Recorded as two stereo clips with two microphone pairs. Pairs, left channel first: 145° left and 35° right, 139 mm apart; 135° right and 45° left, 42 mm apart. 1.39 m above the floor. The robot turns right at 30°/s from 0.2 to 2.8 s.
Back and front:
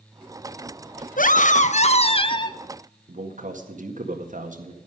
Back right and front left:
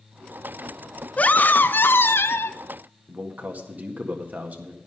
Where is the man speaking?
5° right, 1.8 m.